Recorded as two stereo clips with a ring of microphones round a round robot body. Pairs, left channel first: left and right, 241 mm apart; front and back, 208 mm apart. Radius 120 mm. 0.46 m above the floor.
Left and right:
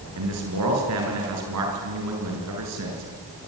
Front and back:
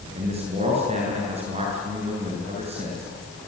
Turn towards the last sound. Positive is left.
turn(degrees=-115)